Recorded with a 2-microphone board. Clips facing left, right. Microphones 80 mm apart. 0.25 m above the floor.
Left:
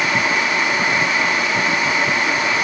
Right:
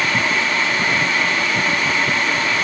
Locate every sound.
Only background noise.